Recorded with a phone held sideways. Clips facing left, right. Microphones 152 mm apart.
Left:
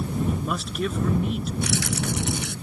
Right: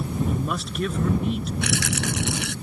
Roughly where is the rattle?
Right.